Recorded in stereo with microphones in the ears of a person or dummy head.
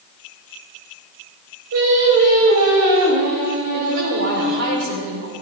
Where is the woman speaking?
70° right (ahead or behind), 3.5 m.